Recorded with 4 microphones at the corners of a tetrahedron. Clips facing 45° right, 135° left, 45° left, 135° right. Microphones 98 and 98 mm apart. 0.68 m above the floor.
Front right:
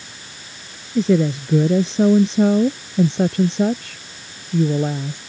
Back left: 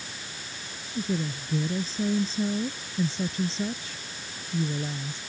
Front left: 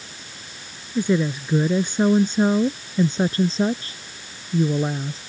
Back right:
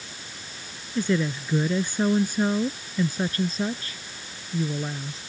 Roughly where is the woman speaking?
Ahead right.